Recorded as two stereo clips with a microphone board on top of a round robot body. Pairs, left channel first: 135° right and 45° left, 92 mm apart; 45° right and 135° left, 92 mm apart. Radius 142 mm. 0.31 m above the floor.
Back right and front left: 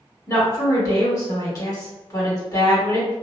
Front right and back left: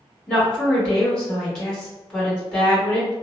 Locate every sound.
0.3 s a woman speaking: 120° right, 1.7 m